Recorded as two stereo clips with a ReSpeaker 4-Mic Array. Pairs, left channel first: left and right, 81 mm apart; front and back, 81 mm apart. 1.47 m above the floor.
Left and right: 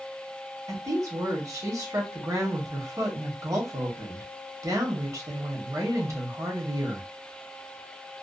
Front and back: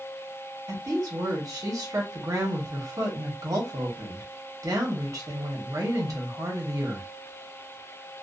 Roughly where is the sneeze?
No sneeze in this recording.